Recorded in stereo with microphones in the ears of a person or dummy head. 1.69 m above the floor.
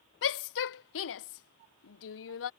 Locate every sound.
0.2 s a shout: 70° left (ahead or behind)